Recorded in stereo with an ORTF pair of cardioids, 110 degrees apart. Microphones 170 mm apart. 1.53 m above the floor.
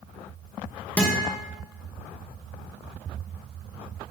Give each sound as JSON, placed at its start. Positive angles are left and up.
{"t": 1.0, "sound": "a guitar", "azimuth_deg": 10, "distance_m": 2.0}